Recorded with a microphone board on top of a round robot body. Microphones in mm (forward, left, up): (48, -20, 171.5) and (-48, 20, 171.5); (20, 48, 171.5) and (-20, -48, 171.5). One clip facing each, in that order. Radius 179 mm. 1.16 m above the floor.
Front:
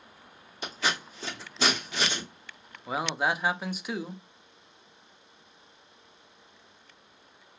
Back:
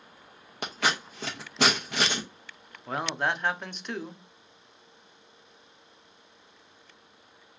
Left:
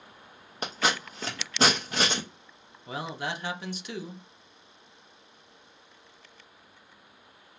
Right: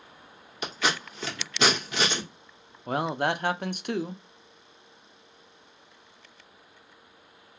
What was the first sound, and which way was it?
Scissors, 120° left.